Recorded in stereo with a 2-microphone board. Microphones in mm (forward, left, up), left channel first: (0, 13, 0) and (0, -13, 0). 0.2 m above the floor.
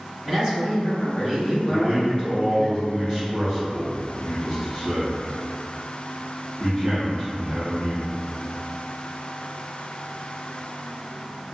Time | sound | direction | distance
0.2 | a man speaking | 25° right (ahead or behind) | 1.2 m
1.7 | a man speaking | 35° right (ahead or behind) | 1.2 m